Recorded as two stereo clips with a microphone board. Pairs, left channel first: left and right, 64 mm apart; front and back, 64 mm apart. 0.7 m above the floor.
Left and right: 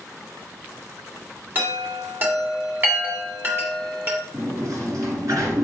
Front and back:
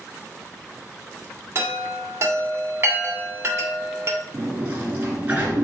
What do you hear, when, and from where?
1.6 s a chime: 140° right, 1.8 m
4.3 s a sliding door: 115° right, 2 m